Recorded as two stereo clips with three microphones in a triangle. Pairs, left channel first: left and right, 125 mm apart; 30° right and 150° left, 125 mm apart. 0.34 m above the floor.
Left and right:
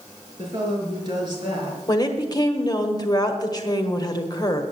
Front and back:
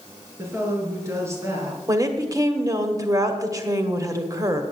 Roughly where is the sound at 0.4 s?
Behind right.